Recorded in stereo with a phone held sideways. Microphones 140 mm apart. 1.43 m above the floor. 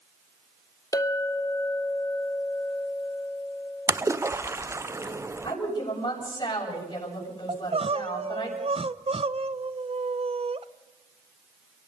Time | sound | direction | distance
0.9 | a clink | 20° left (ahead or behind) | 1.1 m
3.9 | a splash | 20° right (ahead or behind) | 0.6 m
5.4 | a woman speaking | 35° left (ahead or behind) | 7 m
7.5 | crying | 45° right (ahead or behind) | 0.6 m